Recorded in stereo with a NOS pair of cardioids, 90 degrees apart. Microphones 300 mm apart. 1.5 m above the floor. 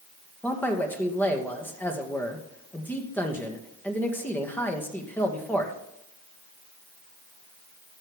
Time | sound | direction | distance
0.4 | a man speaking | 5° left | 2 m